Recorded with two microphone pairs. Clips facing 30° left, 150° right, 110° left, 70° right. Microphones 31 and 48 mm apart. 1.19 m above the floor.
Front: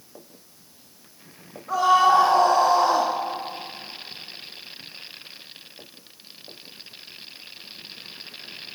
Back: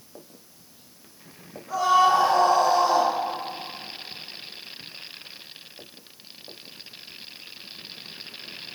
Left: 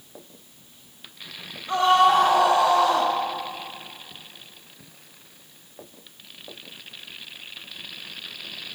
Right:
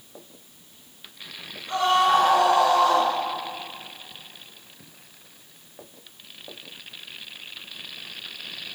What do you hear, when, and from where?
1.7 s a scream: 55° left, 3.5 m; by 3.1 s 25° left, 2.5 m